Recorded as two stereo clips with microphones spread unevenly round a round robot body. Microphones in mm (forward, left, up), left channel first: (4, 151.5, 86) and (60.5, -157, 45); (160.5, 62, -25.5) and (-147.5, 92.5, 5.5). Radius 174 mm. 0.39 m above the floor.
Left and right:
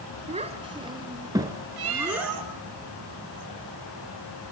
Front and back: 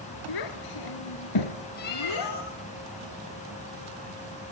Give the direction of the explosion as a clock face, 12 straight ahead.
No explosion in this recording.